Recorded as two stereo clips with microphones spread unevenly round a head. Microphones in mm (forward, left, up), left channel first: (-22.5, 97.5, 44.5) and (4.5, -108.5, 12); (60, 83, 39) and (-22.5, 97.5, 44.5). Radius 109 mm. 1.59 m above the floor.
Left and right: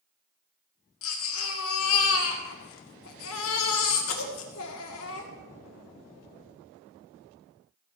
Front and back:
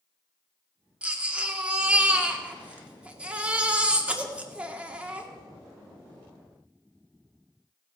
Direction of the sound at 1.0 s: 95° left.